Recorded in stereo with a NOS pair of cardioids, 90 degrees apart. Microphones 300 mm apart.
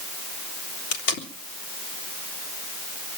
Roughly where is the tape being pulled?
Ahead left.